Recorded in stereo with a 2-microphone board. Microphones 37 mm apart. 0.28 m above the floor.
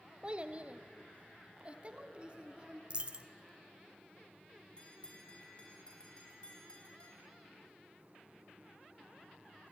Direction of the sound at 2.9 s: 30° right (ahead or behind).